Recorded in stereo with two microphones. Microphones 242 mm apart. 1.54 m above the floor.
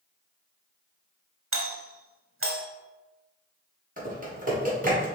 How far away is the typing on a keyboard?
About 1.4 m.